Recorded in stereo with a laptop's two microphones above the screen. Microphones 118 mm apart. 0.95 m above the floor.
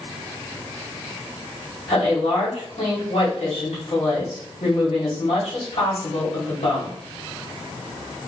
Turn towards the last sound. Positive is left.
turn(degrees=75)  # may be behind; listen again after turning